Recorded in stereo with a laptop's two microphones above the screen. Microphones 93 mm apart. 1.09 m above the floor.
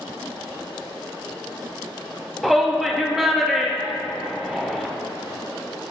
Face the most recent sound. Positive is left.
turn(degrees=0)  # may be behind; listen again after turning